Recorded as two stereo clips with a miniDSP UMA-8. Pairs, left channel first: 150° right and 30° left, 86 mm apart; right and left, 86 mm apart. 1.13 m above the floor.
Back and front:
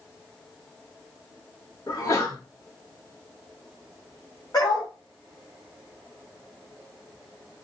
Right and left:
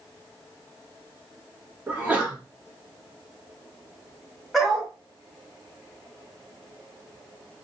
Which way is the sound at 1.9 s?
160° left.